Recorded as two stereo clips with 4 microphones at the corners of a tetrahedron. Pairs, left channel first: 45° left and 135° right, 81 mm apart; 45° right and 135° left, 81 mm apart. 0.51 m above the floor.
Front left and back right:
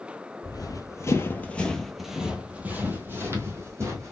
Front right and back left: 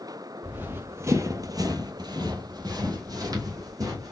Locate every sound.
0.4 s running footsteps: 70° left, 0.9 m; by 4.1 s 175° left, 1.6 m